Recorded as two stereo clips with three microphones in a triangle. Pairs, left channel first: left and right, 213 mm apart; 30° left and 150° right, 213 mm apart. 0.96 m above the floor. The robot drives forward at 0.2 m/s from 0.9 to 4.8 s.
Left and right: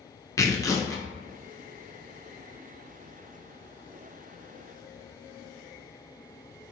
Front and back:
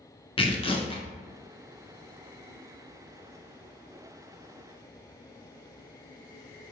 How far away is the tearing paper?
About 0.5 m.